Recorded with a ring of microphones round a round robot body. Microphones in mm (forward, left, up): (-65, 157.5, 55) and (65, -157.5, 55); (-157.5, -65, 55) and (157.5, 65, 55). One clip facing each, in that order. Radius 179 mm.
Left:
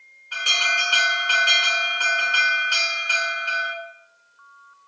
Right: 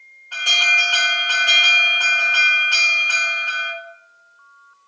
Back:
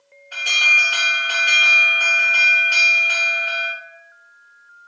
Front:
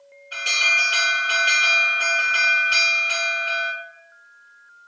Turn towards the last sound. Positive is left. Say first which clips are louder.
# right 1 dB, even
turn(degrees=105)